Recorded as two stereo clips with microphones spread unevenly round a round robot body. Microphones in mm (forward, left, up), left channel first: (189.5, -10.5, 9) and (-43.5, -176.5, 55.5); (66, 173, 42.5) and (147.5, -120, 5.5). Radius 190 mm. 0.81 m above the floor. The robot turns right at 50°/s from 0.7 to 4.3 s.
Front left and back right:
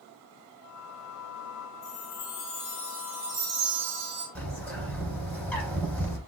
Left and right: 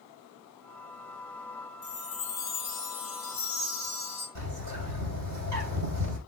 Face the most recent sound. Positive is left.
turn(degrees=-50)